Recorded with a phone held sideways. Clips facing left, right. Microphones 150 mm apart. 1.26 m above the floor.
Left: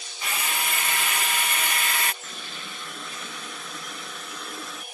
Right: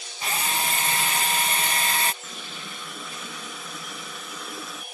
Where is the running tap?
5° right (ahead or behind).